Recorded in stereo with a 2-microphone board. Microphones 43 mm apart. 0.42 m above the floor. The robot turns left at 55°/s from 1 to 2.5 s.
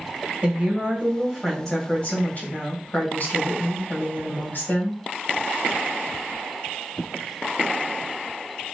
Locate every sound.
0.4 s a woman speaking: 155° right, 2 m; by 5.0 s 125° left, 2 m